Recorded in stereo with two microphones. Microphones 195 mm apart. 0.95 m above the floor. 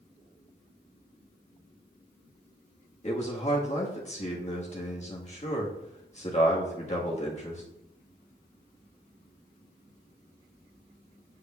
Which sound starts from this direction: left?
A man speaking, at 3.0 s.